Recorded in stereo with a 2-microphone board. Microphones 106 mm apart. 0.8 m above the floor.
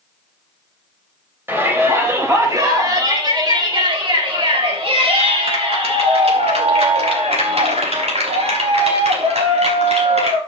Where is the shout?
20° right (ahead or behind), 3.5 m; by 10.4 s 80° right, 6.5 m.